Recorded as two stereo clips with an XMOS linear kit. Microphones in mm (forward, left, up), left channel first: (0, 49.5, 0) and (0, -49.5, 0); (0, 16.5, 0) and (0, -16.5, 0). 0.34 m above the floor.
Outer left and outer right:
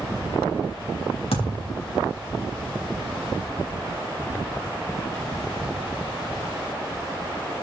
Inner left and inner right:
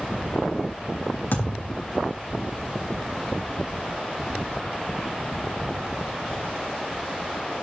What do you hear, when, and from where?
1.3 s a thud: 85° left, 4.5 m